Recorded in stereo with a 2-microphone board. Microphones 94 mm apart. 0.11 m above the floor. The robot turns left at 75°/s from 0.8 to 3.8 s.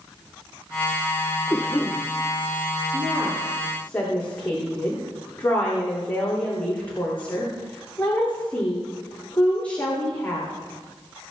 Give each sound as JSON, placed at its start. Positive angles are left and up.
{"t": 1.5, "sound": "a cough", "azimuth_deg": 40, "distance_m": 3.0}
{"t": 2.9, "sound": "a woman speaking", "azimuth_deg": -130, "distance_m": 8.5}